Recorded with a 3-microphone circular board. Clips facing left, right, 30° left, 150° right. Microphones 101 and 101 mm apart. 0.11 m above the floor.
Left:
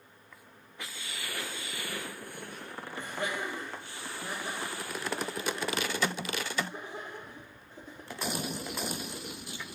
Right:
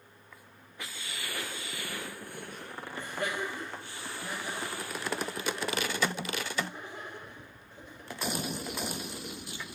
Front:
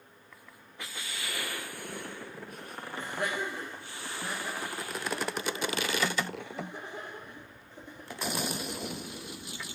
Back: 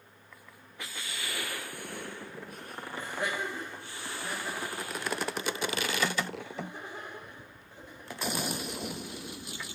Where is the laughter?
25° left, 3 m; by 8.4 s 30° left, 5.5 m.